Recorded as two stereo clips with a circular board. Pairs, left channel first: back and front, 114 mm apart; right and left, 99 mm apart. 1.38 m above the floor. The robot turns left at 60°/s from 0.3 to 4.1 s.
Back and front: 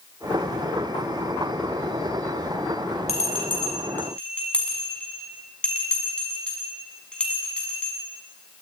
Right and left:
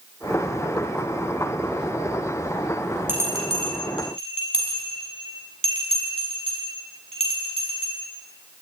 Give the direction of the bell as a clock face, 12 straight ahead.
7 o'clock.